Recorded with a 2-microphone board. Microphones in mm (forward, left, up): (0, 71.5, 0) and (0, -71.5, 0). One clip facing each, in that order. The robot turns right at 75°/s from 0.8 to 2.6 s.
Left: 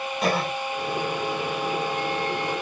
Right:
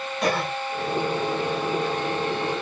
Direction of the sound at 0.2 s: 5° left (ahead or behind).